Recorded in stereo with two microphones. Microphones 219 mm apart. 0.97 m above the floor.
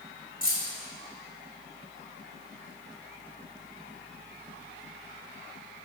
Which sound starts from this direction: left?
Keys jangling, at 0.4 s.